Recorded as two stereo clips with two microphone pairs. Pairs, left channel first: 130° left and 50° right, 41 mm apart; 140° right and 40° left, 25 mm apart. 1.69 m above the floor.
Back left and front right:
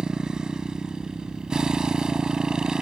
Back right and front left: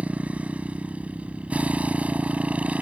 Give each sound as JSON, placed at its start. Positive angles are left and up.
{"t": 0.0, "sound": "a motorcycle", "azimuth_deg": 20}